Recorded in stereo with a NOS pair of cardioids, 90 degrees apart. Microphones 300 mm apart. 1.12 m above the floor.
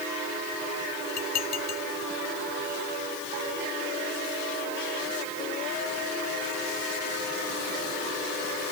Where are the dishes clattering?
60° left.